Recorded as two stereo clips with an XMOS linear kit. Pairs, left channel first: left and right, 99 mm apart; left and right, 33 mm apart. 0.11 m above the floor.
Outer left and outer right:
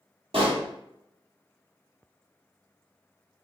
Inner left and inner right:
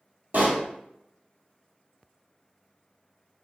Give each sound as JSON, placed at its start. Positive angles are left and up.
{"t": 0.3, "sound": "a pop", "side_deg": -65, "distance_m": 1.3}